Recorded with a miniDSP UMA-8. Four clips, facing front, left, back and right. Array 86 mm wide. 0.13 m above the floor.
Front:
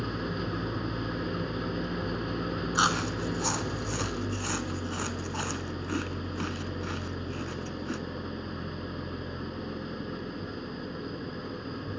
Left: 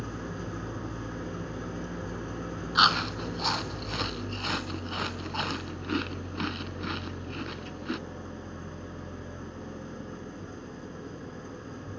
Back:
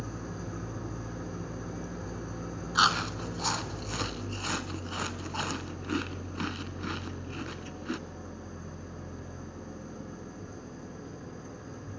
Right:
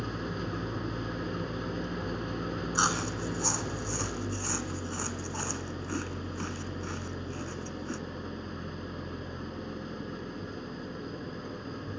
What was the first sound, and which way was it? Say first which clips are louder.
An engine running: right 2 dB, front 6 dB; 15° right.